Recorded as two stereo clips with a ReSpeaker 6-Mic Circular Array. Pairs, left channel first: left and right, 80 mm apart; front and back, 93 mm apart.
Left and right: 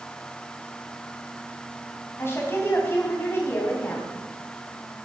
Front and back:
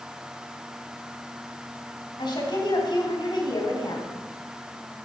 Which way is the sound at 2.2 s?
35° left.